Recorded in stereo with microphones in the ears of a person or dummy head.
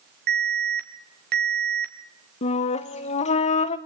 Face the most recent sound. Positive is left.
turn(degrees=40)  # may be behind; listen again after turning